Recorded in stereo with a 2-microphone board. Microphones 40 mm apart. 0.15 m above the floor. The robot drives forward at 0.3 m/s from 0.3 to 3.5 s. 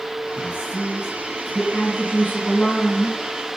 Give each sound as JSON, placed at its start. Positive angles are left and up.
{"t": 0.4, "sound": "a man speaking", "side_deg": -35, "distance_m": 2.0}
{"t": 1.7, "sound": "a woman speaking", "side_deg": 40, "distance_m": 2.0}